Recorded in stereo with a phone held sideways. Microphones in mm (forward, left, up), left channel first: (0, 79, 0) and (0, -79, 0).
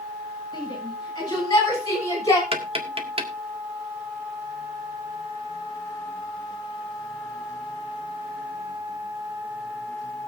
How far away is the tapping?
About 1.9 m.